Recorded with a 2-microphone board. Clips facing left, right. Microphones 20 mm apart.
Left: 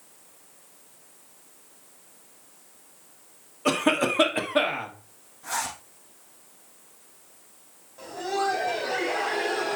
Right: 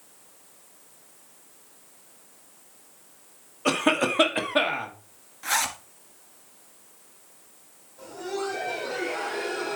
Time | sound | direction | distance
3.6 | a cough | 10° right (ahead or behind) | 1.4 m
5.4 | a zipper | 65° right (ahead or behind) | 1.6 m
8.0 | laughter | 40° left (ahead or behind) | 3 m